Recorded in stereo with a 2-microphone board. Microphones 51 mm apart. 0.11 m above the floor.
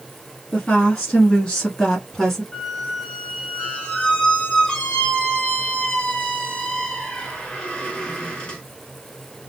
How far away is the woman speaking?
About 1.3 m.